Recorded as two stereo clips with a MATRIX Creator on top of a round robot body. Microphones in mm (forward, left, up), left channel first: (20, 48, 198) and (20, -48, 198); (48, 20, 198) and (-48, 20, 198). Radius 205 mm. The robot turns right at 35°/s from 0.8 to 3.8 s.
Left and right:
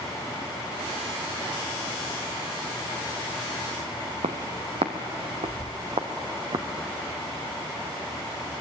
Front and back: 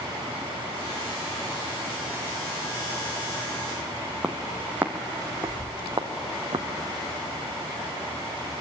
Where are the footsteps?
100° right, 1.4 m; by 6.7 s 130° right, 2 m.